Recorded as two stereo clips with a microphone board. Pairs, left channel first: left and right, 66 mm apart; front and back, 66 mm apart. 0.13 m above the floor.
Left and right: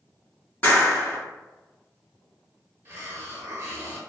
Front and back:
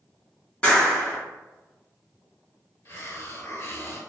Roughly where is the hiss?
Ahead right.